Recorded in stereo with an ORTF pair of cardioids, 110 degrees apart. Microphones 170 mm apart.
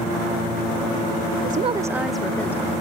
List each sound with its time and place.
1.4 s a woman speaking: 55° right, 0.6 m; by 2.7 s 15° left, 1.6 m